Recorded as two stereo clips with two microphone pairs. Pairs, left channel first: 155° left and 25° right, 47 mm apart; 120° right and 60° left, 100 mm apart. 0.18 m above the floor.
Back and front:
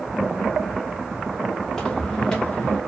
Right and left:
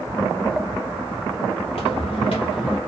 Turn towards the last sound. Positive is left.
turn(degrees=-135)